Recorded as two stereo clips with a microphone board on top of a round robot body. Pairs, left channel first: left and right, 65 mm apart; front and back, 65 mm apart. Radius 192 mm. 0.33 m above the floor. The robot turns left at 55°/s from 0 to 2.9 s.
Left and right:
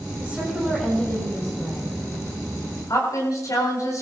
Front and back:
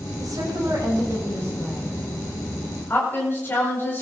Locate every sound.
0.2 s a woman speaking: 155° right, 8 m; by 4.0 s 55° left, 8 m